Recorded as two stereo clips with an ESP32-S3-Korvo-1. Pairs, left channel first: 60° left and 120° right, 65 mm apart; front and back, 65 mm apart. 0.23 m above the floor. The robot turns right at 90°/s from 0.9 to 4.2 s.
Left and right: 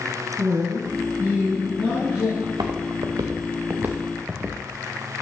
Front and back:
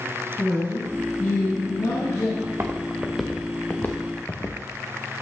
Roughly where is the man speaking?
Right.